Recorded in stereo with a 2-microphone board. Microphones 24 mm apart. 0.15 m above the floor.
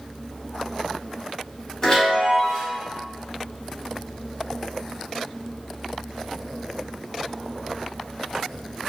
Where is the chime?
25° left (ahead or behind), 1.3 m.